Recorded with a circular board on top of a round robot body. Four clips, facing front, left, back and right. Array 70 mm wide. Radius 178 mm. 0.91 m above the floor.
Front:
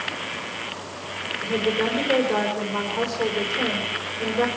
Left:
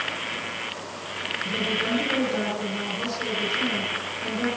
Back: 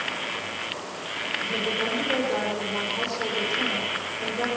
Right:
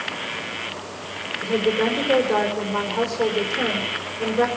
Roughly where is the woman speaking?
Right.